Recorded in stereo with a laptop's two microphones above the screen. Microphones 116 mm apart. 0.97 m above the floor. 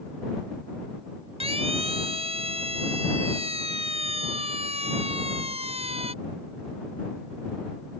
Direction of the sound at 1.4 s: 60° right (ahead or behind).